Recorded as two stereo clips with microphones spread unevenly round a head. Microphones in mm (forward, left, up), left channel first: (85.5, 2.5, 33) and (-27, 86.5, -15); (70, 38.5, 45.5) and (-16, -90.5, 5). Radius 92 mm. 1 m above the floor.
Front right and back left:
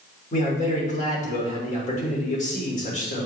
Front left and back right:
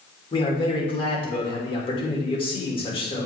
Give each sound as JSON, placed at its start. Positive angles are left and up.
{"t": 0.3, "sound": "a man speaking", "azimuth_deg": 0, "distance_m": 3.0}